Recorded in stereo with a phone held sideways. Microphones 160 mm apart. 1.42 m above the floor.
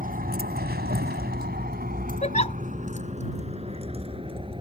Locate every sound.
0.0 s a vehicle: 60° right (ahead or behind); by 4.6 s 35° right (ahead or behind)
2.2 s a giggle: 45° left (ahead or behind)